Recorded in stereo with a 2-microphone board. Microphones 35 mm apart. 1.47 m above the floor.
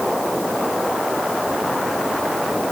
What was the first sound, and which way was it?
Only background noise.